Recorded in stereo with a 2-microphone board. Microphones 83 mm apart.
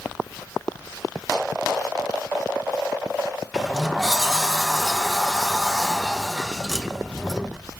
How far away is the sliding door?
About 0.5 m.